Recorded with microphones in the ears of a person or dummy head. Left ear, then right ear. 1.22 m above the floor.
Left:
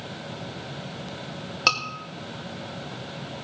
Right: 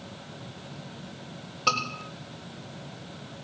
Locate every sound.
1.7 s a scream: 55° left (ahead or behind), 5 m